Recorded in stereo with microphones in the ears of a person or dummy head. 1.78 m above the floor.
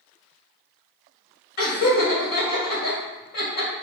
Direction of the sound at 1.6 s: 55° left (ahead or behind).